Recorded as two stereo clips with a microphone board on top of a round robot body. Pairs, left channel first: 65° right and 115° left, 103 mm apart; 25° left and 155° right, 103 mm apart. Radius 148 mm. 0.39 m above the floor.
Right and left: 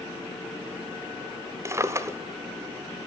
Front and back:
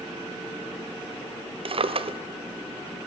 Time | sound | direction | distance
1.6 | a drawer | 175° left | 1.2 m